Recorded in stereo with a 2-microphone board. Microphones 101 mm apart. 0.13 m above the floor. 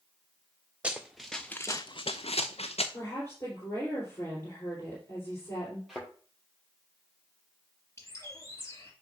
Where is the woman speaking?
25° left (ahead or behind), 3.5 m.